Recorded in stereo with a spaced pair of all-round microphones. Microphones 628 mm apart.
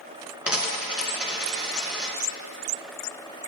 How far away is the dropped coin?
About 2 m.